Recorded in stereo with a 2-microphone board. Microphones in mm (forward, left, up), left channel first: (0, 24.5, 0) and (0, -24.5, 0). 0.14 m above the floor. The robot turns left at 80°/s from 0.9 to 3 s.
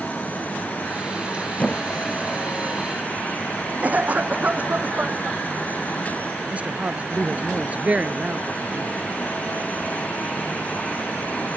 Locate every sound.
1.6 s a squeak: 35° left (ahead or behind); by 2.8 s 60° right (ahead or behind)
3.8 s a cough: 35° right (ahead or behind)
6.5 s a woman speaking: 30° right (ahead or behind)